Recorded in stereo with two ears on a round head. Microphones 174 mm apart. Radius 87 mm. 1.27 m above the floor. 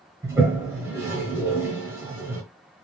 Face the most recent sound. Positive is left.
turn(degrees=-15)  # may be behind; listen again after turning